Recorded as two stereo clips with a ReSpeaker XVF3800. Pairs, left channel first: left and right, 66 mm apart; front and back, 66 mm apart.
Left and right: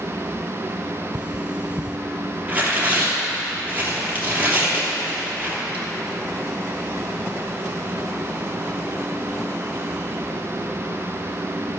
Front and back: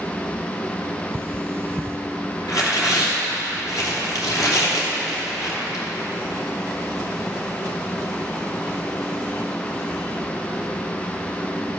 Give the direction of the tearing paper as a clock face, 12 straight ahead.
1 o'clock.